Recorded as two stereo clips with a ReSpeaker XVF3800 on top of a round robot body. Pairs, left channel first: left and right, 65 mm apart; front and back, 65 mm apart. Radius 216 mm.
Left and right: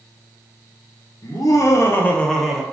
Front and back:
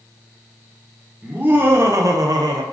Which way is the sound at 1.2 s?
110° left.